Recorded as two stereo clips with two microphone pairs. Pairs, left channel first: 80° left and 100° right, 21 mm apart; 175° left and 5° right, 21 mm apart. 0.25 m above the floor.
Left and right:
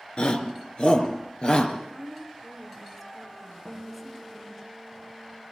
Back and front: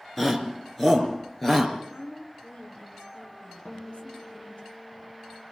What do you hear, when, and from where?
0.2 s a shout: 100° left, 3.5 m; by 1.7 s 105° left, 4.5 m
1.8 s a woman speaking: 165° left, 4 m
3.6 s a guitar: 170° left, 8.5 m